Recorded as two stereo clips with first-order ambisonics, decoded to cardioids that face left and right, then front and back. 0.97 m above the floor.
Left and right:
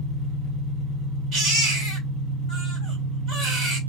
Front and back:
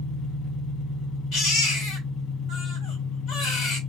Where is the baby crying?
45° right, 2 m.